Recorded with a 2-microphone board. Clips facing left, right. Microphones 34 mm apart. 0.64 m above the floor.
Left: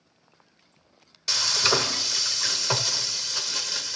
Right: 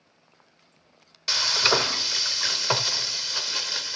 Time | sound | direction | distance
1.3 | frying | 15° right (ahead or behind) | 0.9 m